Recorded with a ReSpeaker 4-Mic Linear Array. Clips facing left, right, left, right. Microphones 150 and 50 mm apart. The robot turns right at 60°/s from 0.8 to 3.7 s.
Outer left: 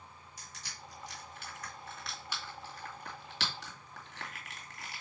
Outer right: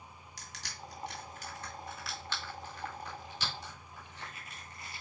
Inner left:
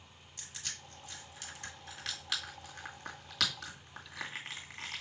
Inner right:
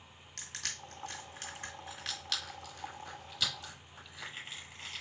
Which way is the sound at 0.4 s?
80° right.